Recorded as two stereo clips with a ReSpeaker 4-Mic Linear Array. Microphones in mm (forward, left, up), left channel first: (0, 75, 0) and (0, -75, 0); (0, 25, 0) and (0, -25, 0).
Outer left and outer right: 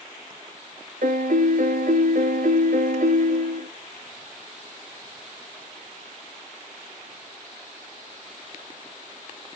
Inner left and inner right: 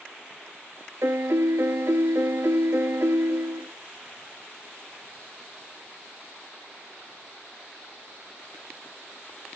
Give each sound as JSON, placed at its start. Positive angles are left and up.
{"t": 1.0, "sound": "a piano", "side_deg": -70, "distance_m": 0.9}